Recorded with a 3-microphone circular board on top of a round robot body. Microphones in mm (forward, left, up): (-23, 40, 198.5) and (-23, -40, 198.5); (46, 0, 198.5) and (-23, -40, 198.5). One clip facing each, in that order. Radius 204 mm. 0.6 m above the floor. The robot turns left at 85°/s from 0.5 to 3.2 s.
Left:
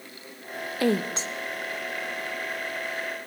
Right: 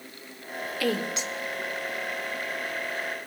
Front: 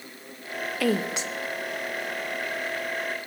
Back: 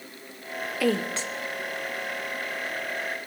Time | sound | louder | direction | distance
0.8 | a woman speaking | left 4 dB, even | 120° left | 1.3 m